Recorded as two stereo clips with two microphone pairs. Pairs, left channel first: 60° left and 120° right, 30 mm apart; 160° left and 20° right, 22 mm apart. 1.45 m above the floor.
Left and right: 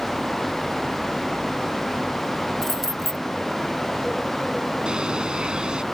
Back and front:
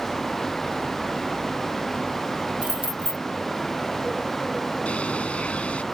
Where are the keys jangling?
20° right.